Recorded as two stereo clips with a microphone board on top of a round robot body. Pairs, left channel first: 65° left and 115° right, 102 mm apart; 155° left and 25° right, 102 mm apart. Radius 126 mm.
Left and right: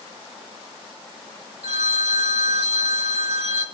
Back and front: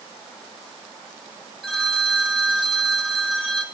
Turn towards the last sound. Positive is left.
turn(degrees=-110)